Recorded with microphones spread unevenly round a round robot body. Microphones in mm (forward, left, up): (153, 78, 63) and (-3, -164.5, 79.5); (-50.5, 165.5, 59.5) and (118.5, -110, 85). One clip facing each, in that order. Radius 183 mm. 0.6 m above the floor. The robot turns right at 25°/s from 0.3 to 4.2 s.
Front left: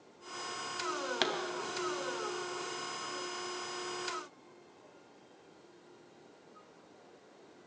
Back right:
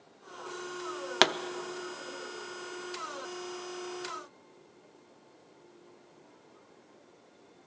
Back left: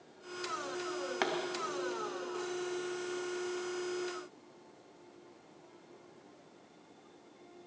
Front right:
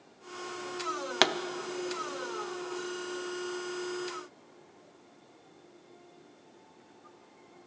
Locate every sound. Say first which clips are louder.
1.2 s a pop: back right 8 dB, front right 6 dB; 95° right, 0.7 m